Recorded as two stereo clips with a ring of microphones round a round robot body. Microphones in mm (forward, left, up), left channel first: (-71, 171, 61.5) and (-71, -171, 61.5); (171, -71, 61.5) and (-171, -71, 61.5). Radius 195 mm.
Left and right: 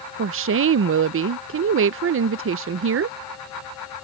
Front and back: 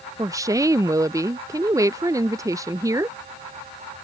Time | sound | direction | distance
0.2 | a woman speaking | 105° right | ?